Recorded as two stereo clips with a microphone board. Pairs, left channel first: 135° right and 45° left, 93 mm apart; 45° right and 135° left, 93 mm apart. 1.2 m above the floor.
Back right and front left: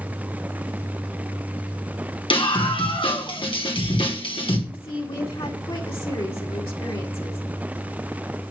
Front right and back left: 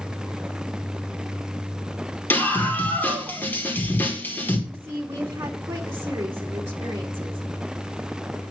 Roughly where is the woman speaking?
Behind.